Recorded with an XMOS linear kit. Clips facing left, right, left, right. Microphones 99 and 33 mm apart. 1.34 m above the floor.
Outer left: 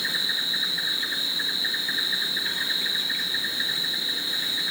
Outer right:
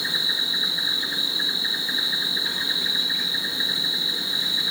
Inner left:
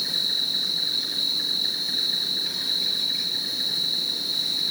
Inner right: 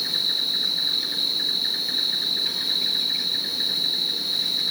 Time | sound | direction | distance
0.0 | an insect | 15° right (ahead or behind) | 4 m